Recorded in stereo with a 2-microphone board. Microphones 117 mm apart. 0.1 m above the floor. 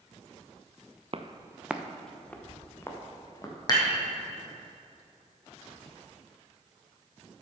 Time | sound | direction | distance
1.1 | footsteps | 50° right (ahead or behind) | 0.8 m
3.7 | dishes clattering | 35° left (ahead or behind) | 3 m